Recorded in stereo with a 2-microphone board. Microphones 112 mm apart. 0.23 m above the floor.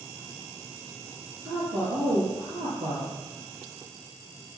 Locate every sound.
1.4 s a woman speaking: 70° right (ahead or behind), 5 m